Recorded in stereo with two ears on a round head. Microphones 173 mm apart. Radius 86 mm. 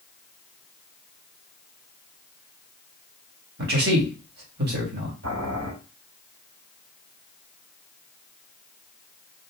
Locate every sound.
3.6 s a man speaking: 55° right (ahead or behind), 1.6 m
5.2 s boiling: 75° right (ahead or behind), 2 m